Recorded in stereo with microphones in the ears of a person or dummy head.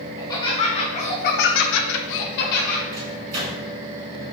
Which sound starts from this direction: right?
A microwave, at 2.9 s.